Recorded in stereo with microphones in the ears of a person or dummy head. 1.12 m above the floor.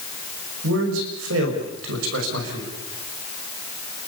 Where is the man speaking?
75° right (ahead or behind), 5.5 m.